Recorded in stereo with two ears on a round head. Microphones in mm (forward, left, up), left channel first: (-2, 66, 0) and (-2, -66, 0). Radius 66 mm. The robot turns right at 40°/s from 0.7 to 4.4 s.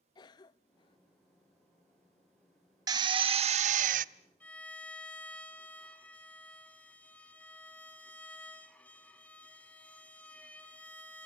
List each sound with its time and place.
0.1 s a cough: 30° left (ahead or behind), 0.6 m; by 1.0 s 35° left (ahead or behind), 0.6 m
2.9 s a drill: 150° right, 0.6 m; by 4.0 s 105° right, 0.6 m
4.4 s a violin: 10° left (ahead or behind), 3 m